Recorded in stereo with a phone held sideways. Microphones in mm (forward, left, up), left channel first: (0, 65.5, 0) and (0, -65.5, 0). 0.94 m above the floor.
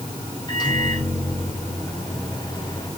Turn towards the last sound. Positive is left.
turn(degrees=35)  # may be behind; listen again after turning